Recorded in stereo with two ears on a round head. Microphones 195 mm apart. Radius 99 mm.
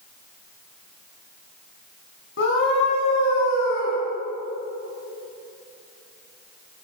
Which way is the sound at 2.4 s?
60° left (ahead or behind).